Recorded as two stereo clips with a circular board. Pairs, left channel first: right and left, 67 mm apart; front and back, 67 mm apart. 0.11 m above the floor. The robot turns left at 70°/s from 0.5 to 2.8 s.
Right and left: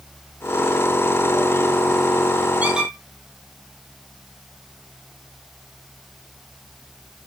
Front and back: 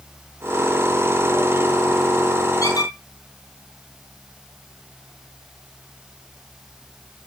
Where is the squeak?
25° left, 1.9 m; by 2.9 s 10° left, 1.9 m.